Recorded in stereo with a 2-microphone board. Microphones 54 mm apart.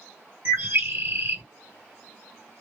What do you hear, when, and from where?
0.5 s a bird: 55° right (ahead or behind), 1.8 m